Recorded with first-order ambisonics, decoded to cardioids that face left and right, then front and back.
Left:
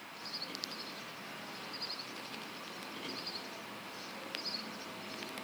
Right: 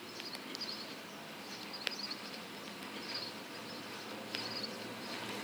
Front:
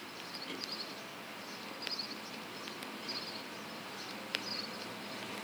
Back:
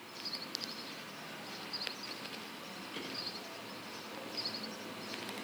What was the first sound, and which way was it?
Only background noise.